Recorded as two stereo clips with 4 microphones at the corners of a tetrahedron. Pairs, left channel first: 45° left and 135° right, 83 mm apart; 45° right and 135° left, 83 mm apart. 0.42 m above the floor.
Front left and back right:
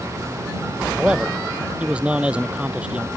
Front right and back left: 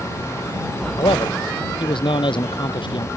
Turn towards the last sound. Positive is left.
turn(degrees=-60)